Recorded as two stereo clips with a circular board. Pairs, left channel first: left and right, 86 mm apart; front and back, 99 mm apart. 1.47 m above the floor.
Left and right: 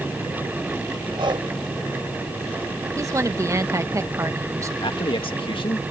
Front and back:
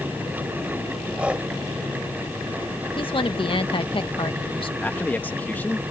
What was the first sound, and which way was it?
Breathing, 105° right.